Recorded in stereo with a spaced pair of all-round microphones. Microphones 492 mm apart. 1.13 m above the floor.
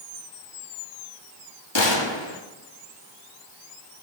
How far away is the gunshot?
About 1.1 m.